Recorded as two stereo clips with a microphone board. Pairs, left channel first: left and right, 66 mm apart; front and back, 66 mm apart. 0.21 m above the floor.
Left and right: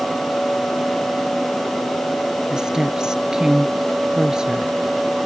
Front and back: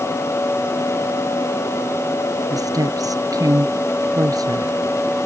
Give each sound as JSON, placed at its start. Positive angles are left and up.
{"t": 2.5, "sound": "a woman speaking", "azimuth_deg": -170}